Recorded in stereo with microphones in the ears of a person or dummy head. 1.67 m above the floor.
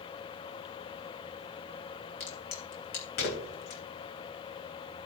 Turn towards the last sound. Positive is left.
turn(degrees=45)  # may be behind; listen again after turning